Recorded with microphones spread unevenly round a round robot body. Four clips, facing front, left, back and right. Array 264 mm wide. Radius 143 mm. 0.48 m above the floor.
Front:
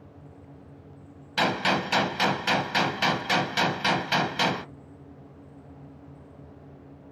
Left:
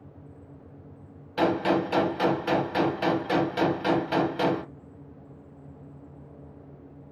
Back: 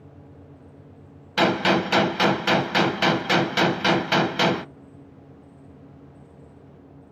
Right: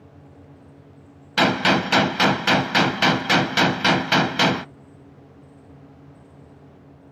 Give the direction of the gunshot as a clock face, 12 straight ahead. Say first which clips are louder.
Right 4 dB, back 5 dB; 3 o'clock.